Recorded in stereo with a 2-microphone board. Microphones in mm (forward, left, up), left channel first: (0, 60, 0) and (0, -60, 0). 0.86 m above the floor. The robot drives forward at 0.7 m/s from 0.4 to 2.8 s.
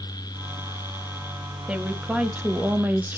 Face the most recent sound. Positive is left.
turn(degrees=-15)  # may be behind; listen again after turning